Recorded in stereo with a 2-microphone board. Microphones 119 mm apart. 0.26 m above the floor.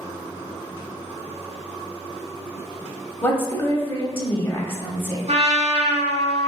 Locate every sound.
3.2 s a woman speaking: 20° left (ahead or behind), 1.0 m
5.3 s a trumpet: 70° right (ahead or behind), 0.8 m